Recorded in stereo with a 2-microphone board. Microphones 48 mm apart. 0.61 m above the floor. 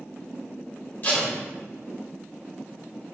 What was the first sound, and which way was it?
Tape being pulled, 35° left (ahead or behind).